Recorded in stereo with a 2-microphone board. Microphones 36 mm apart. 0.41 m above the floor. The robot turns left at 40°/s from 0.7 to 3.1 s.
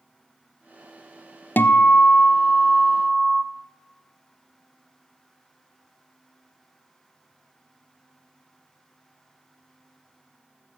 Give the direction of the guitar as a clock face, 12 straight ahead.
10 o'clock.